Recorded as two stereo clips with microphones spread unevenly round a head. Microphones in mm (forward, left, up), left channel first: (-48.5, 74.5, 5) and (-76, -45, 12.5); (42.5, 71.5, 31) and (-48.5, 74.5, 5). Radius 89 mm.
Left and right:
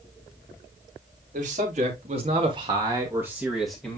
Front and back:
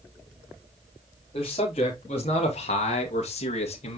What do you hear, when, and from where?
1.3 s a man speaking: 55° right, 3 m; by 4.0 s 5° right, 1.9 m